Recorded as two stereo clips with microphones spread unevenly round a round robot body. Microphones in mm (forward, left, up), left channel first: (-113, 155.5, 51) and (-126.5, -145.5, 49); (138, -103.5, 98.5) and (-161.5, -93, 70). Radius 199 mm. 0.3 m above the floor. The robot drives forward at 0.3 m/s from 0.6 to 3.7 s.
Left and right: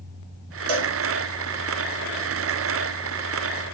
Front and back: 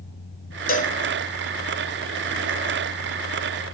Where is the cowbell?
65° right, 0.6 m; by 1.0 s 75° right, 0.6 m.